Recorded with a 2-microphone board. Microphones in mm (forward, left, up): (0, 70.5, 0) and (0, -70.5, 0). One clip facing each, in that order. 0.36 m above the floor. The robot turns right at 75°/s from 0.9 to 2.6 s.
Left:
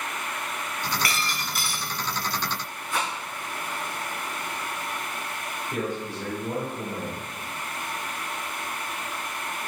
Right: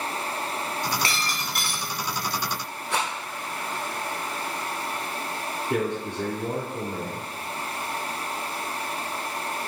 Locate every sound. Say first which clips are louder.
1.0 s breaking glass: even; 150° right, 1.8 m; by 1.9 s 90° right, 1.8 m
2.9 s a rattle: right 1 dB; 75° right (ahead or behind), 4 m
5.7 s a man speaking: right 4 dB; 70° right (ahead or behind), 3.5 m